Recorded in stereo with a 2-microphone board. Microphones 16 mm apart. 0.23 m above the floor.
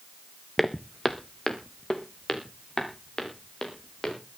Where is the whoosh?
I don't hear a whoosh.